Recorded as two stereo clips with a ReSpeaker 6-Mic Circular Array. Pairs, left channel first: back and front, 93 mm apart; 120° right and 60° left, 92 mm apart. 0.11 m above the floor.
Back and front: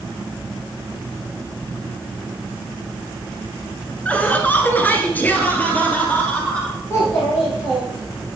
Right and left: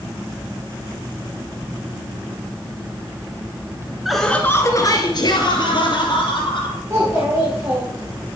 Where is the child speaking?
120° left, 4 m.